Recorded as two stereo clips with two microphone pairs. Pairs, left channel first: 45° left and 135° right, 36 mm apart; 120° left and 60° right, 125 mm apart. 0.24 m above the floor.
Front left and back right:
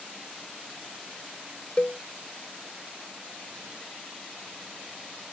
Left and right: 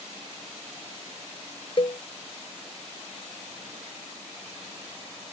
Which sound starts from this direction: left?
A cowbell, at 1.8 s.